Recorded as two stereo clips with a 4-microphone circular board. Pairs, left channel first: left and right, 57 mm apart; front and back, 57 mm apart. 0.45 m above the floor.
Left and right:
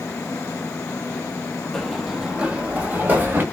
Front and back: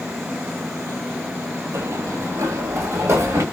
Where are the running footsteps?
165° left, 0.7 m; by 3.4 s 145° right, 1.5 m.